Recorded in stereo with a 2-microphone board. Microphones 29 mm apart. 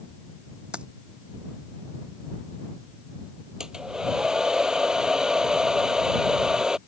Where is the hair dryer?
25° right (ahead or behind).